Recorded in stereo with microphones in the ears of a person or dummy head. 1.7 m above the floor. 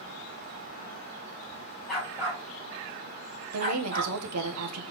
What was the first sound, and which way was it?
A dog barking, centre (ahead or behind).